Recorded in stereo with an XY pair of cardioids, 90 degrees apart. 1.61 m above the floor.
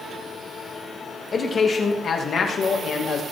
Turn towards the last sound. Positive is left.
turn(degrees=70)